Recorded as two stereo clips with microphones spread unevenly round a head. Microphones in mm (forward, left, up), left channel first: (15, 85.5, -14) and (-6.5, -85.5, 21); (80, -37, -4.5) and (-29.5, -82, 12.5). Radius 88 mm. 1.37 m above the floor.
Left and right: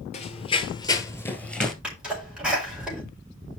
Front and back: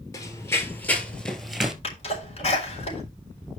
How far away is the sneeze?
About 5 m.